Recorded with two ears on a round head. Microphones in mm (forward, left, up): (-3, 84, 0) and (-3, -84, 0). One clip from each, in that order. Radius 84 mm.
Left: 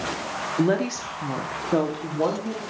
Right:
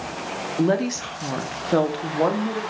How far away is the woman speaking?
About 1.0 m.